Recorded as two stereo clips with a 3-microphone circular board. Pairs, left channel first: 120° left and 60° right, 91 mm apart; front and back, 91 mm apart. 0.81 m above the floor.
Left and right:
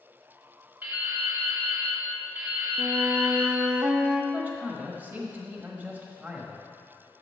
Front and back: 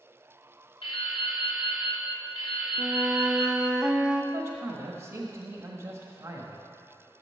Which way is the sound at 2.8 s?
110° right.